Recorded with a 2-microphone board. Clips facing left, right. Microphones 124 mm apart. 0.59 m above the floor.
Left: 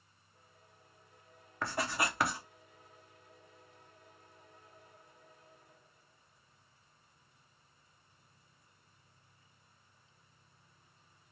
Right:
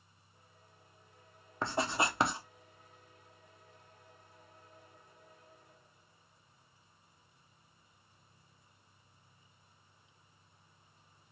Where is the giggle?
No giggle in this recording.